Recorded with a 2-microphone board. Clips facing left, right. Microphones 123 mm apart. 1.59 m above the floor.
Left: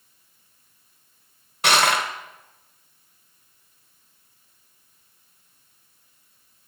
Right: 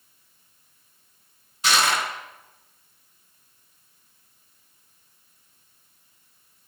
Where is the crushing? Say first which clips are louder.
Left 3 dB; 65° left (ahead or behind), 1.1 m.